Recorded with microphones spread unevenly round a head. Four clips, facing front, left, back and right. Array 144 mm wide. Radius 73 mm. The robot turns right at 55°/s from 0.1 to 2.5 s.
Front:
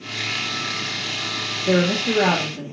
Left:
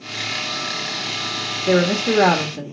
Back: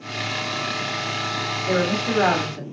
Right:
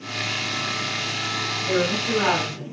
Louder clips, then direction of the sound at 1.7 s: Left 6 dB, front 3 dB; 45° left.